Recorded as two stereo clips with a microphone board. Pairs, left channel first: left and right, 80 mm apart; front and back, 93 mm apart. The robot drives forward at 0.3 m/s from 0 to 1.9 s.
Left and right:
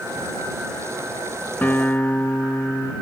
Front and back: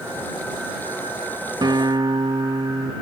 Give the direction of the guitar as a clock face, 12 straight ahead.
7 o'clock.